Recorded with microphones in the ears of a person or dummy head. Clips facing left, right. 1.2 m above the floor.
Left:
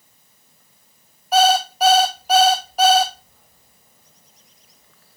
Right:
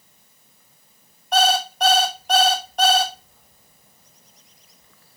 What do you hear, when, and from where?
1.3 s an alarm clock: 5° left (ahead or behind), 0.7 m